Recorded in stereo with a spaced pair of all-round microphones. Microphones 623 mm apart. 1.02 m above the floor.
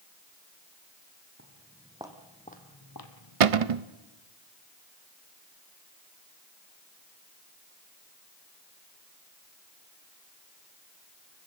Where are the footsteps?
20° right (ahead or behind), 3 m; by 3.8 s 65° left (ahead or behind), 2.5 m.